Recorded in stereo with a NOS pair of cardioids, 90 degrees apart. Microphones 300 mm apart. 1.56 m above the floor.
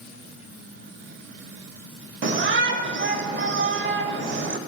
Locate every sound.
2.2 s a shout: 40° right, 0.9 m